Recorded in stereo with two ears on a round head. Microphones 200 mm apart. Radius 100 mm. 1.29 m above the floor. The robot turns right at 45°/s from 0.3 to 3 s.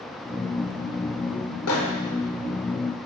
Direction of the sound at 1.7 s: 70° left (ahead or behind).